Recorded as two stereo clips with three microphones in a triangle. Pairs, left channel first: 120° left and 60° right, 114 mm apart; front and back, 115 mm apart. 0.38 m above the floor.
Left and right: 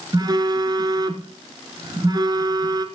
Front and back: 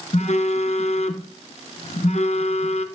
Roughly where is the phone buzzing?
Ahead.